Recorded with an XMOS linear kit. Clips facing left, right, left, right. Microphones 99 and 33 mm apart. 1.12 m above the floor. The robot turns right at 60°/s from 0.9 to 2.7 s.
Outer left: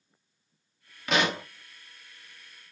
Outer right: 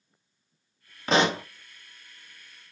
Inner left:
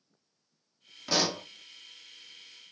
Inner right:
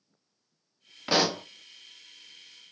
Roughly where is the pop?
Right.